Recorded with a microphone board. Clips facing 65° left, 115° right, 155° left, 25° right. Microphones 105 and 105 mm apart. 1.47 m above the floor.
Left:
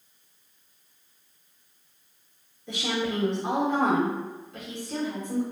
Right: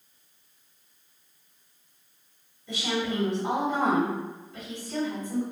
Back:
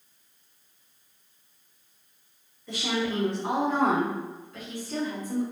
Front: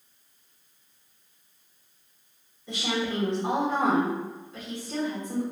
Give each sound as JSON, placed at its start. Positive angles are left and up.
{"t": 2.7, "sound": "a woman speaking", "azimuth_deg": 45, "distance_m": 1.8}